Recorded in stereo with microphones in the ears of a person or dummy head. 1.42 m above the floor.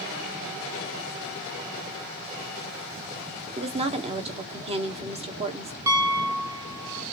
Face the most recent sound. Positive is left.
turn(degrees=-10)  # may be behind; listen again after turning